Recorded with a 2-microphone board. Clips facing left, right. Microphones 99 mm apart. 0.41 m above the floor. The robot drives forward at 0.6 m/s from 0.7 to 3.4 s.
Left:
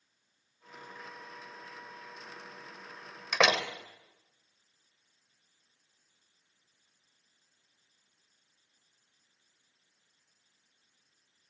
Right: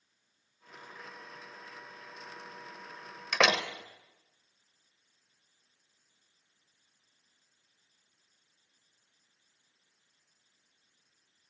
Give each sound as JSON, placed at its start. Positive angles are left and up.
{"t": 3.3, "sound": "a door slam", "side_deg": 5, "distance_m": 0.9}